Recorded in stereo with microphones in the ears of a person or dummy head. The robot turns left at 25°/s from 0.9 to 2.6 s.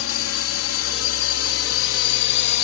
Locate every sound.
0.0 s a drone: 65° left (ahead or behind); by 2.6 s 60° left (ahead or behind)